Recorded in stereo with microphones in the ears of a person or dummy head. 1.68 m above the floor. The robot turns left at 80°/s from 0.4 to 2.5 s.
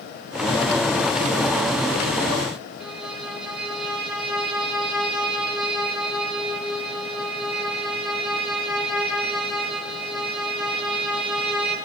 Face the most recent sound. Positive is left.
turn(degrees=-10)  # may be behind; listen again after turning